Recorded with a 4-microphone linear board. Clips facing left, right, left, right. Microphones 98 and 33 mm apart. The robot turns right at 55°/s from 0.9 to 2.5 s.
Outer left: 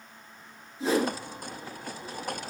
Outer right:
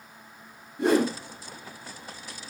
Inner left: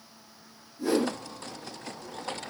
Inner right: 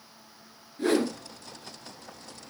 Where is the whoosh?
60° right (ahead or behind), 1.2 m; by 1.2 s 50° right (ahead or behind), 1.2 m.